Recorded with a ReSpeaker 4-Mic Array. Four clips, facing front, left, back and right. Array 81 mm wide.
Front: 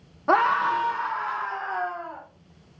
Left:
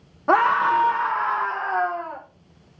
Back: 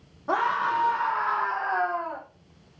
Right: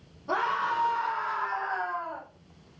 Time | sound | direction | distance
0.3 | a scream | 60° left | 1.0 m